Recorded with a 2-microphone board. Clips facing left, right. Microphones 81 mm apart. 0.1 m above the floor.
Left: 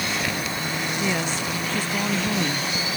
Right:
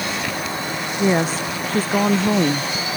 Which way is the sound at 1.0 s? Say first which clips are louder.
Right 10 dB; 40° right (ahead or behind).